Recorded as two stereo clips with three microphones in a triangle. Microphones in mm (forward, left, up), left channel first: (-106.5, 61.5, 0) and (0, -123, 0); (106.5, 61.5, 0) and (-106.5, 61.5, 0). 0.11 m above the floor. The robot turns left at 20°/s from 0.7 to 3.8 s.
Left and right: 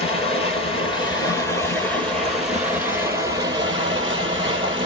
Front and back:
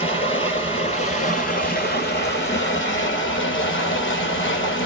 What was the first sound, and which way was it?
Running water, 65° left.